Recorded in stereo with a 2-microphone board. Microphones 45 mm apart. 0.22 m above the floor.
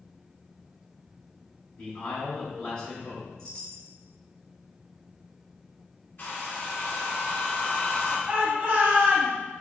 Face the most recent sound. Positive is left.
turn(degrees=-25)  # may be behind; listen again after turning